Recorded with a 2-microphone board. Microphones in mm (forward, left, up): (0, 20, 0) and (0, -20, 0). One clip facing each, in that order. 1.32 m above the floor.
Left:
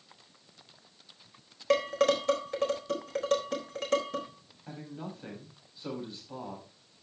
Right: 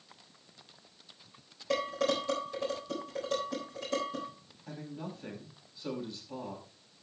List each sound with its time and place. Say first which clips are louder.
1.7 s dishes clattering: left 5 dB; 65° left (ahead or behind), 4 m
4.7 s a man speaking: even; 20° left (ahead or behind), 6.5 m